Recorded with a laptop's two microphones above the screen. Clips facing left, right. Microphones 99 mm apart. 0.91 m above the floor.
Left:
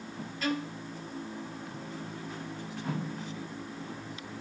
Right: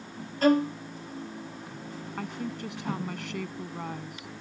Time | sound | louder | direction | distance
0.4 | a violin | right 11 dB | 40° right (ahead or behind) | ?
2.2 | a woman speaking | right 5 dB | 70° right (ahead or behind) | ?